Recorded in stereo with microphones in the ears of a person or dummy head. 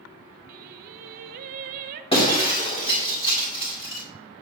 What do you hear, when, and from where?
0.5 s singing: 50° right (ahead or behind), 0.6 m
2.1 s breaking glass: 25° left (ahead or behind), 2.0 m